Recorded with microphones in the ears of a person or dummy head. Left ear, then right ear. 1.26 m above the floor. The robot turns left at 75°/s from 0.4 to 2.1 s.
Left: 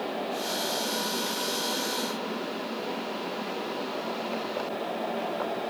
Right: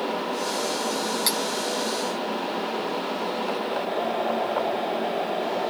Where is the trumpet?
No trumpet in this recording.